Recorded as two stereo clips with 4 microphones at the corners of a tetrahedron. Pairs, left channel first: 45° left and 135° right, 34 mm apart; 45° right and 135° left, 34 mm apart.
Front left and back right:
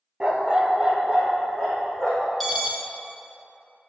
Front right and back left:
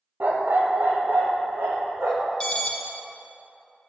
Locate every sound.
0.2 s a dog barking: 160° left, 1.0 m; by 2.3 s 150° left, 3 m
2.4 s an alarm: 45° right, 1.3 m